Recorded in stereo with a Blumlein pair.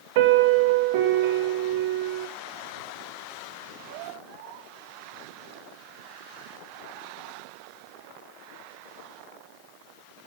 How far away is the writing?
No writing in this recording.